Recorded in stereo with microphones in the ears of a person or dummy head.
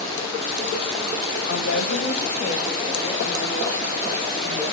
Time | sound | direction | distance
1.5 | a woman speaking | 80° left | 2 m